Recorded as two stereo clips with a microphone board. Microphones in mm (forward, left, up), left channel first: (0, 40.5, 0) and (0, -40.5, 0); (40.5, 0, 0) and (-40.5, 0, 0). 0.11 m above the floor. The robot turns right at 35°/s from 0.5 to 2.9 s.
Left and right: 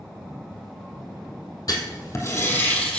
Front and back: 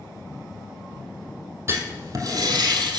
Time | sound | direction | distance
1.7 | writing | 125° left | 2.0 m